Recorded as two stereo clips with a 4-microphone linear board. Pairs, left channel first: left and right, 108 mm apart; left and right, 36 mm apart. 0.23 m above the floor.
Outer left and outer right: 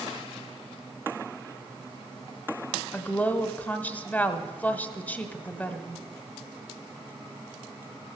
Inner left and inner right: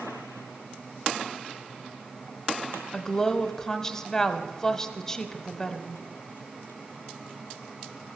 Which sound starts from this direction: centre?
A woman speaking, at 2.9 s.